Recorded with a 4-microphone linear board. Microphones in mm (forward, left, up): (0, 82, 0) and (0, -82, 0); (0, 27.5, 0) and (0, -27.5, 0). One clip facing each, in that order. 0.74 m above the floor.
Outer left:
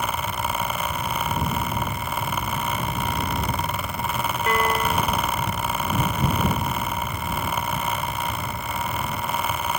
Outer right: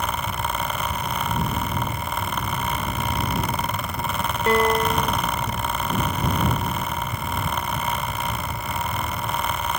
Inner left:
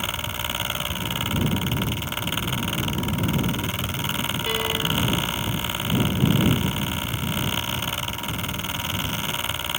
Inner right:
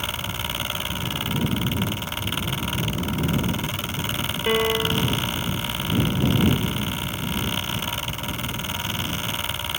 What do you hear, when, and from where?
4.5 s a piano: 30° right (ahead or behind)